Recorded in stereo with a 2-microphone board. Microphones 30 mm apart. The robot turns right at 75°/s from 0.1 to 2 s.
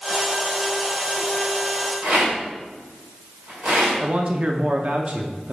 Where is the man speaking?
35° right (ahead or behind), 0.7 m.